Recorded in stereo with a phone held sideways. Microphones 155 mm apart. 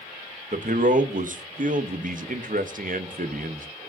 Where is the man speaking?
55° right (ahead or behind), 0.6 m.